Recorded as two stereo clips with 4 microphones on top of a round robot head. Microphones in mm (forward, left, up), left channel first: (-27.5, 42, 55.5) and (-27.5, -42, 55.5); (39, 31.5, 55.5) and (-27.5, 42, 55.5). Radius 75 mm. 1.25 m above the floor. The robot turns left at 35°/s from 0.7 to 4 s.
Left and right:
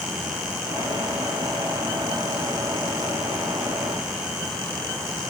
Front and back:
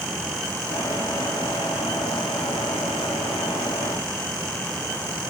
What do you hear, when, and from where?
Only background noise.